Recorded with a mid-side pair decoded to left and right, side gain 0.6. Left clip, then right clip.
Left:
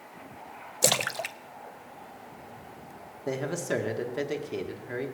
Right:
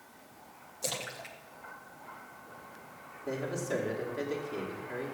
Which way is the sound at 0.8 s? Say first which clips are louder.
Left 11 dB; 65° left.